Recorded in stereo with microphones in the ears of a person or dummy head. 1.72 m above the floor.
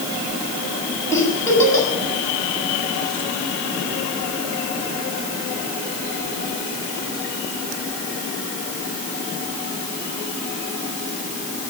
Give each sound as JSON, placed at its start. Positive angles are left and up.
{"t": 1.1, "sound": "a giggle", "side_deg": 20, "distance_m": 7.5}